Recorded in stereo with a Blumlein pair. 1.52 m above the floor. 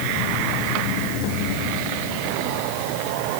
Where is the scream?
I don't hear a scream.